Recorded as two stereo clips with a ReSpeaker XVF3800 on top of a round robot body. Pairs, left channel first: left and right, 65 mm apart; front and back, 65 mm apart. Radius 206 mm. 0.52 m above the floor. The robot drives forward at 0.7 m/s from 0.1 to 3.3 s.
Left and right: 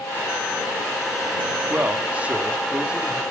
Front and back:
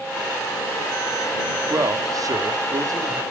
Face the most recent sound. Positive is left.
turn(degrees=-165)